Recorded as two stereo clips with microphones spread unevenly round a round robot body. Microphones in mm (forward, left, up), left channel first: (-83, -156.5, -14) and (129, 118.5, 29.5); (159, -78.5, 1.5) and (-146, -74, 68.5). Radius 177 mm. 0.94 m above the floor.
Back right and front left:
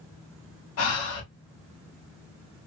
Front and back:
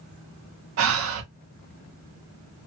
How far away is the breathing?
About 0.9 m.